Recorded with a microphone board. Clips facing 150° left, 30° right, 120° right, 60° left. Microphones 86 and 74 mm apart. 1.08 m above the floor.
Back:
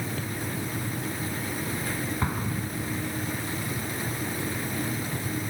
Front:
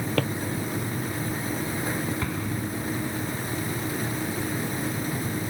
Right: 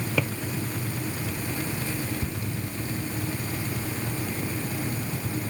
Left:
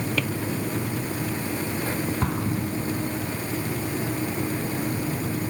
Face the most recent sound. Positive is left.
turn(degrees=85)